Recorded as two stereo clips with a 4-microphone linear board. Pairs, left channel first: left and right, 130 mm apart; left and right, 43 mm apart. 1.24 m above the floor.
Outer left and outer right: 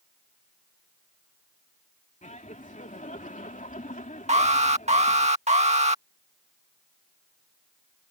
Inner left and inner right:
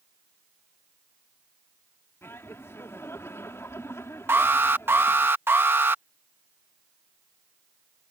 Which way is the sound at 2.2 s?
70° left (ahead or behind).